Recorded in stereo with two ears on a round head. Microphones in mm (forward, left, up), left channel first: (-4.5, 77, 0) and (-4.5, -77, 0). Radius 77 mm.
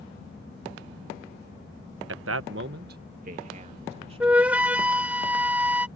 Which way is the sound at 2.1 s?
75° right (ahead or behind).